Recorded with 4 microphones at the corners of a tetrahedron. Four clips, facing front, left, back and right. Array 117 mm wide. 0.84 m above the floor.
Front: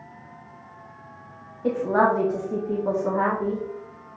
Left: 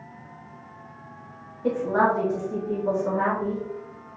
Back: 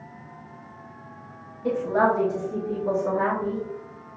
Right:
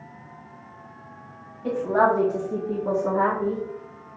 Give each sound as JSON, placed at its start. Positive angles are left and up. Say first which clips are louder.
{"t": 1.6, "sound": "a woman speaking", "louder": "right 1 dB, front 1 dB", "azimuth_deg": 5, "distance_m": 1.1}